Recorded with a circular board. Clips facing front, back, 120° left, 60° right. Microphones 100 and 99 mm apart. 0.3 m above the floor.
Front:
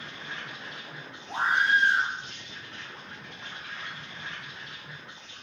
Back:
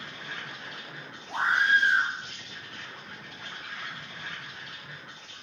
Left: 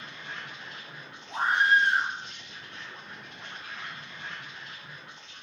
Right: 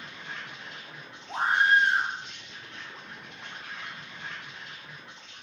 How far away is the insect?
About 1.7 m.